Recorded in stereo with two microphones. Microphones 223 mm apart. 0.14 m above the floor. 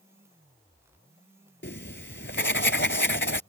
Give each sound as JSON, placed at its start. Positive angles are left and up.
{"t": 1.6, "sound": "writing", "side_deg": 55}